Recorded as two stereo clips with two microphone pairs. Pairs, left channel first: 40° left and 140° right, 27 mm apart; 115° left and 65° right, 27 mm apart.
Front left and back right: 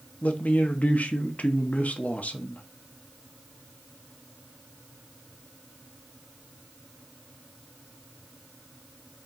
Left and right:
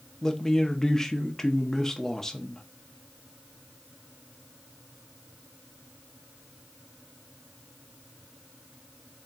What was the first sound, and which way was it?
A man speaking, 40° left.